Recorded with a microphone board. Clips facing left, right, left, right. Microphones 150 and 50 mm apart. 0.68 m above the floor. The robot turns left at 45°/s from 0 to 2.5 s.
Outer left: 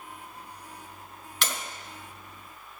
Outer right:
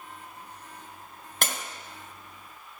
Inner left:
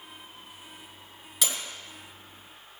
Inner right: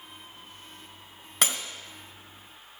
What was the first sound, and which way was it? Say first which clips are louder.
Breaking glass: outer right 1 dB, inner right 4 dB; 50° right (ahead or behind).